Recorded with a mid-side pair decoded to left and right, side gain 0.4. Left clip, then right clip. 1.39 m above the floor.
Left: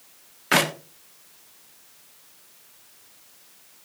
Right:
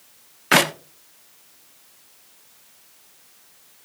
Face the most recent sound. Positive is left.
turn(degrees=-30)